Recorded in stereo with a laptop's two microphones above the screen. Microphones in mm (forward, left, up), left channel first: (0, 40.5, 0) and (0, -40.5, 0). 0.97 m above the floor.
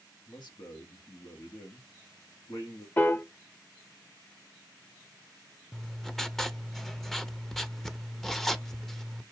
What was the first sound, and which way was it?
A man speaking, 70° left (ahead or behind).